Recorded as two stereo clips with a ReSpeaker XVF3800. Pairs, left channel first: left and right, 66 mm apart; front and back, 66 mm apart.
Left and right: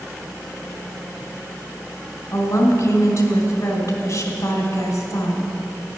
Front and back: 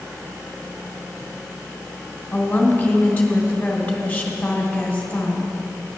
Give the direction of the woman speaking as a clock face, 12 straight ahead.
10 o'clock.